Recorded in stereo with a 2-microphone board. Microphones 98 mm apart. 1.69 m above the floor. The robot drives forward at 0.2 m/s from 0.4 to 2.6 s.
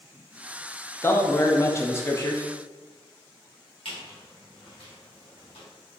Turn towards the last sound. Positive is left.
turn(degrees=65)  # may be behind; listen again after turning